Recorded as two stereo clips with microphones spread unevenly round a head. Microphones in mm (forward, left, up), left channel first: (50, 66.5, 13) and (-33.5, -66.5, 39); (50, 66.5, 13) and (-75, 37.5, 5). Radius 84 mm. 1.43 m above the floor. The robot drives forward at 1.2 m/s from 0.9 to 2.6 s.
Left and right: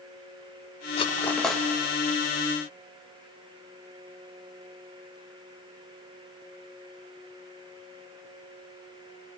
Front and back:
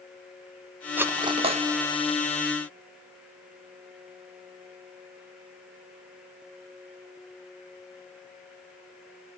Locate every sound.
1.0 s cutlery clinking: 115° left, 0.7 m; by 1.6 s 155° left, 1.2 m